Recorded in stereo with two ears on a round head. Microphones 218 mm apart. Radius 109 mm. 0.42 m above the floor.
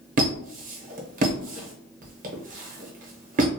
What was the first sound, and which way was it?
A squeak, 35° right (ahead or behind).